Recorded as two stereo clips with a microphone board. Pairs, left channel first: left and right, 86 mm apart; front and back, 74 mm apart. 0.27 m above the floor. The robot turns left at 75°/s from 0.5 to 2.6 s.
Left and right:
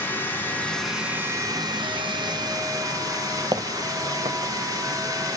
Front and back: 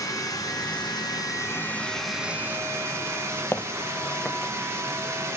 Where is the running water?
25° left, 1.7 m; by 5.4 s 130° right, 1.7 m.